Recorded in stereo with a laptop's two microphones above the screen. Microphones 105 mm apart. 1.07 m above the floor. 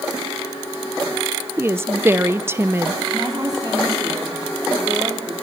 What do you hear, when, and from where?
1.6 s a woman speaking: 25° right (ahead or behind), 0.7 m
3.1 s a woman speaking: 35° right (ahead or behind), 3 m